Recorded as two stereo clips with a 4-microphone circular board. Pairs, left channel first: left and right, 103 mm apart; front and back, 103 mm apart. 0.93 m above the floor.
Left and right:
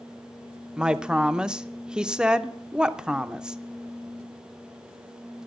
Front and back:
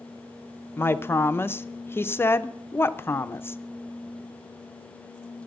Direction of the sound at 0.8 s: 20° right.